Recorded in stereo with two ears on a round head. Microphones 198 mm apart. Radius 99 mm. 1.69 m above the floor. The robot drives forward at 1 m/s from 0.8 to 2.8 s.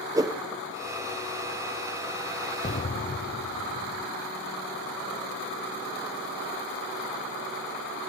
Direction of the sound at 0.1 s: 15° right (ahead or behind).